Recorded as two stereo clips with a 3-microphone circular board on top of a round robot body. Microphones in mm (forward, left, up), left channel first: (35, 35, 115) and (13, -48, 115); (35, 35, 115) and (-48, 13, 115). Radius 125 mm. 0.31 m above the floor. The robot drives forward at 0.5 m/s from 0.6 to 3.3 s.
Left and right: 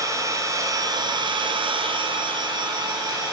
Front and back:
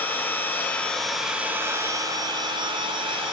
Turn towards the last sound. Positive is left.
turn(degrees=-150)